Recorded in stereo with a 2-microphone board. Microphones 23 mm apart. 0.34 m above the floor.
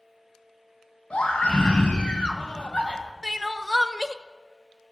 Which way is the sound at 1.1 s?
60° left (ahead or behind).